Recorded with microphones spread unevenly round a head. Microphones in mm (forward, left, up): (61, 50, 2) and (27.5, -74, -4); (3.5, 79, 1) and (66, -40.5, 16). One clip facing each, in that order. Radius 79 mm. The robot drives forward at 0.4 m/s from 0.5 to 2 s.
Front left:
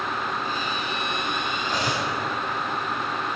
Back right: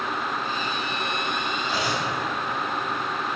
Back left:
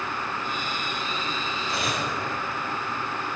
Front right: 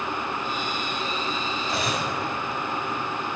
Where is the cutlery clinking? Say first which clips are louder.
Front left 1 dB, front right 1 dB; 25° right, 4.5 m.